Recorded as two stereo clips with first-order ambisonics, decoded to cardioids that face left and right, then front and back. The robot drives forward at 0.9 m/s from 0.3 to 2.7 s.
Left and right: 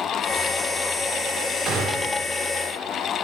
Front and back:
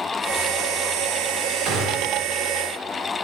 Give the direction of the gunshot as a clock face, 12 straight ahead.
5 o'clock.